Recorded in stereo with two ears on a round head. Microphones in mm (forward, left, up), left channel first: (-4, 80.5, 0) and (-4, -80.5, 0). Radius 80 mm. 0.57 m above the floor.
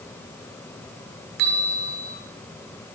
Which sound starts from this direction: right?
A bell, at 1.4 s.